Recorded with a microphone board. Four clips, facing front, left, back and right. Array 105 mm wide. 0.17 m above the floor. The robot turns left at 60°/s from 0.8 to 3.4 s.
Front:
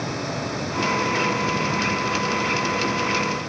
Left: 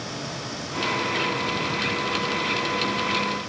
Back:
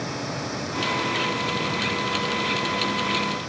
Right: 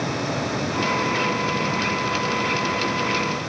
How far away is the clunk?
I don't hear a clunk.